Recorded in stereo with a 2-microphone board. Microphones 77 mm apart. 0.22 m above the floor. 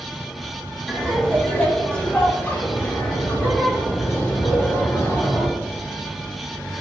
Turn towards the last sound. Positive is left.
turn(degrees=40)  # may be behind; listen again after turning